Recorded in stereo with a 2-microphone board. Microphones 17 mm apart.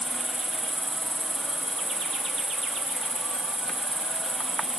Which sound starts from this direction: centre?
An insect, at 0.0 s.